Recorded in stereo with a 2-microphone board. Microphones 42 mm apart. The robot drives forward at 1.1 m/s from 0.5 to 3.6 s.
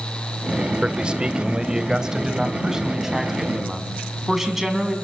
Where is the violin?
No violin in this recording.